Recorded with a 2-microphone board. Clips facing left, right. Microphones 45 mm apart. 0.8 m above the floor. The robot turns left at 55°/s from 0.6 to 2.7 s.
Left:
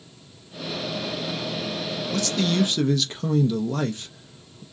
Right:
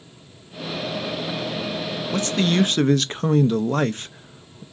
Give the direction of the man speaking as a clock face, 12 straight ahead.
1 o'clock.